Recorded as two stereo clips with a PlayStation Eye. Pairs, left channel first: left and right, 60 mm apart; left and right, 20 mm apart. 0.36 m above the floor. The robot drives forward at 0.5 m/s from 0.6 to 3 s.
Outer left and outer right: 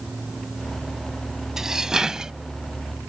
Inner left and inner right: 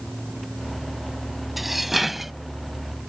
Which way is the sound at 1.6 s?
10° right (ahead or behind).